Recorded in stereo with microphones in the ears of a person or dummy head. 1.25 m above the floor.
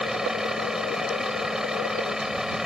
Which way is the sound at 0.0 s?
Centre (ahead or behind).